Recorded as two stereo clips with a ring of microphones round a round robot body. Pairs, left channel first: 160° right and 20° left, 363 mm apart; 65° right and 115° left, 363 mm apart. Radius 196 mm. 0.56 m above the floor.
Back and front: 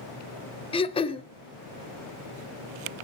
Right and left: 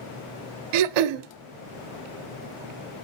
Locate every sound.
0.7 s throat clearing: 125° left, 0.6 m